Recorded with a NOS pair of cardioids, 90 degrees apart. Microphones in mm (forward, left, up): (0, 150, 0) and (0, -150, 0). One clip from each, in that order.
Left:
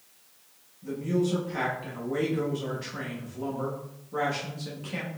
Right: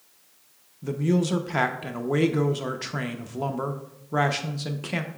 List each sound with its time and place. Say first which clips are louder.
0.8 s a man speaking: right 2 dB; 55° right, 0.9 m